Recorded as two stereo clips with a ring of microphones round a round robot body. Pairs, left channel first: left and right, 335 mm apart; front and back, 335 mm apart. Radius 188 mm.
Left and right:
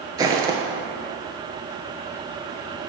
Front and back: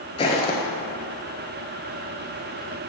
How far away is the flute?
I don't hear a flute.